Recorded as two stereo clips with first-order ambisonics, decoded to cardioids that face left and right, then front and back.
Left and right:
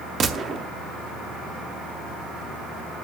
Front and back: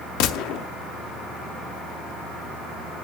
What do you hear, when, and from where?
0.2 s a gunshot: 25° right, 0.7 m